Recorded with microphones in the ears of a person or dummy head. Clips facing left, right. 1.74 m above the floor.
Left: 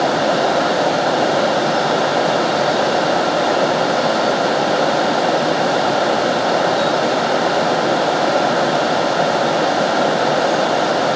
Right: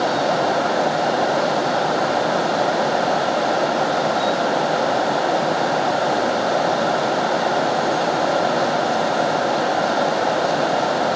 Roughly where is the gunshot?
I don't hear a gunshot.